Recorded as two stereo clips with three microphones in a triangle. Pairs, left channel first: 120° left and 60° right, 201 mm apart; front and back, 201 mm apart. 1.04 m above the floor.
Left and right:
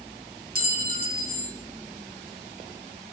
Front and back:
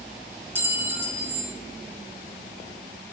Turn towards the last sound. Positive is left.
turn(degrees=-100)